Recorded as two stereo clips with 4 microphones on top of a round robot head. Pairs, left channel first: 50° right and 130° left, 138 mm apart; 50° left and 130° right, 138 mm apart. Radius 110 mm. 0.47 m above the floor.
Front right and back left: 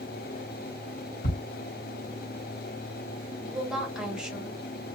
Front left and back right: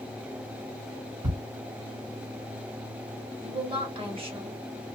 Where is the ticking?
70° right, 1.6 m.